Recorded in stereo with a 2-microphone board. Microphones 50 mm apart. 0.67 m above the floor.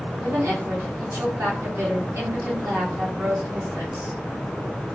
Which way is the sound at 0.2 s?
60° right (ahead or behind).